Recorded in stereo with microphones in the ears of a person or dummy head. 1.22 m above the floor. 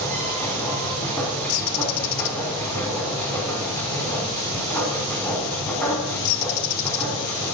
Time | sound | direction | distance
0.0 | a machine running | 15° left (ahead or behind) | 4.5 m
1.5 | a bird | 65° left (ahead or behind) | 0.6 m